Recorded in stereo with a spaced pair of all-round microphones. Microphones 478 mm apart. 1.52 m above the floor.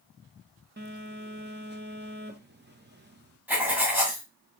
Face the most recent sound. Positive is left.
turn(degrees=-5)  # may be behind; listen again after turning